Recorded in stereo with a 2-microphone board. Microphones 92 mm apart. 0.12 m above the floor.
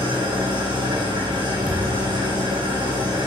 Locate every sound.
0.0 s an engine running: 55° right (ahead or behind), 4 m
1.7 s a thud: 15° right (ahead or behind), 3.5 m